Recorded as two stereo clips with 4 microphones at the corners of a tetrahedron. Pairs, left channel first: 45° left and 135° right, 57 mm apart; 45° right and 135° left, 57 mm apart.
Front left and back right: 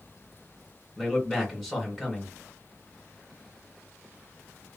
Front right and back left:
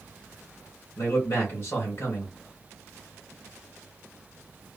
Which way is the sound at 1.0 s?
40° right.